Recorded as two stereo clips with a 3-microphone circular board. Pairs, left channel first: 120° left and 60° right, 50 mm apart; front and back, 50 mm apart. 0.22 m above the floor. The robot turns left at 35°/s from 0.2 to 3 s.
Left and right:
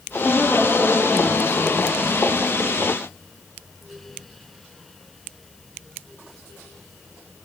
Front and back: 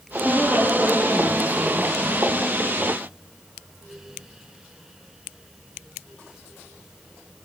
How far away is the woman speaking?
About 8 m.